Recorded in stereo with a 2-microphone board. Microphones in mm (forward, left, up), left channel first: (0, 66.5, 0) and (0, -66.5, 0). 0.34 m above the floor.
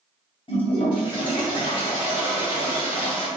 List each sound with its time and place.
0.5 s a toilet flushing: 40° left (ahead or behind), 1.6 m